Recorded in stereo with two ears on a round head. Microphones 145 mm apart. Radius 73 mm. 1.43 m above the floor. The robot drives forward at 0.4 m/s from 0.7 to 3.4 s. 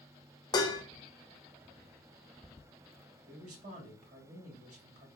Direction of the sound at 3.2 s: 50° right (ahead or behind).